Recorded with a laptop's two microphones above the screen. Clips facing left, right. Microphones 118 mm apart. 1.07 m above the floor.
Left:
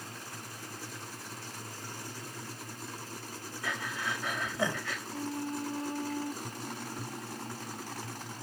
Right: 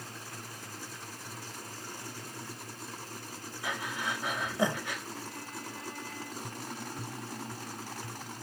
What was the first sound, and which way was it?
Breathing, 20° right (ahead or behind).